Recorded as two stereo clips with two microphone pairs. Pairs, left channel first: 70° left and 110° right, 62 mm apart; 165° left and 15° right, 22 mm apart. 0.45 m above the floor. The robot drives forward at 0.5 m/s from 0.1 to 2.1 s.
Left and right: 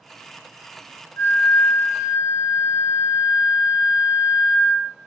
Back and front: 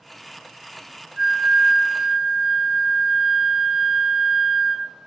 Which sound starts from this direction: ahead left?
A flute, at 1.2 s.